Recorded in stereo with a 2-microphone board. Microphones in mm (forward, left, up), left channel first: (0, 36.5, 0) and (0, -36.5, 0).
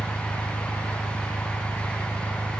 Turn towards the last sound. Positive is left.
turn(degrees=85)